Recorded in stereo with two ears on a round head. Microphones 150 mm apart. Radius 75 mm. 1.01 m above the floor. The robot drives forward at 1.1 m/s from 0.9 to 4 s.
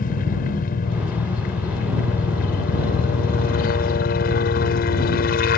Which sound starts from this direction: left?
A helicopter, at 0.0 s.